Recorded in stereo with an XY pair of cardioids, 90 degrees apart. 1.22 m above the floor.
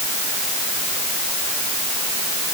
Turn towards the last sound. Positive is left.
No sound to turn to.